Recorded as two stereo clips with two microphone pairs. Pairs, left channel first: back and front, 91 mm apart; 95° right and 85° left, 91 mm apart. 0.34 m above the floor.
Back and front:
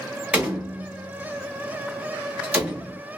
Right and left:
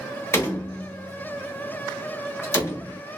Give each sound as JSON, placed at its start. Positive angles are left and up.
{"t": 0.3, "sound": "a door slam", "azimuth_deg": -65, "distance_m": 1.0}